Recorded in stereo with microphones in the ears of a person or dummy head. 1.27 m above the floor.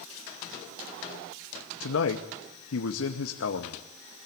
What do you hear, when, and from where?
1.8 s a man speaking: 75° left (ahead or behind), 2 m